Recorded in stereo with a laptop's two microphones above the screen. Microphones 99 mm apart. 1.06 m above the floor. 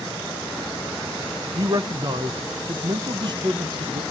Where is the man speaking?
45° right (ahead or behind), 0.9 m.